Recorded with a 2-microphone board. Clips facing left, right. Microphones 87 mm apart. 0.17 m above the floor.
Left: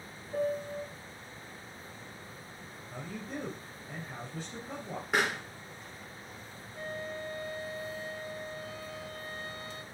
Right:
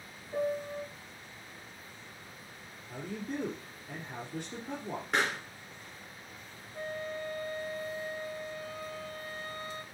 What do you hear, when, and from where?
0.3 s a piano: 20° right (ahead or behind), 1.4 m
2.9 s a man speaking: 60° right (ahead or behind), 3 m
5.1 s a pop: 5° left (ahead or behind), 2.0 m
6.7 s a flute: 40° right (ahead or behind), 0.8 m